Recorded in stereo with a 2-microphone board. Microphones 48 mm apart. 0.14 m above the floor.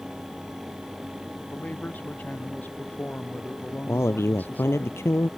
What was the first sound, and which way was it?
A man speaking, 40° left (ahead or behind).